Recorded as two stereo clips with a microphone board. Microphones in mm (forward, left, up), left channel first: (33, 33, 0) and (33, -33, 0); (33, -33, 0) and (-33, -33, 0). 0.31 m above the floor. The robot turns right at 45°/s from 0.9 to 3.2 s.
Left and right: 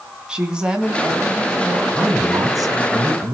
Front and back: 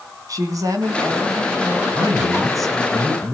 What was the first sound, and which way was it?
A woman speaking, 165° right.